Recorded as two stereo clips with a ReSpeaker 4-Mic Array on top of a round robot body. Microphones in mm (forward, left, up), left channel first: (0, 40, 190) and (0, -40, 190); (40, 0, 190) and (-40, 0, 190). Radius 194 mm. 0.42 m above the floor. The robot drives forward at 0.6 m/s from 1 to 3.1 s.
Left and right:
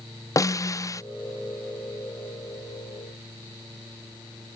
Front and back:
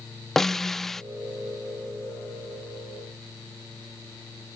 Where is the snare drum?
85° left.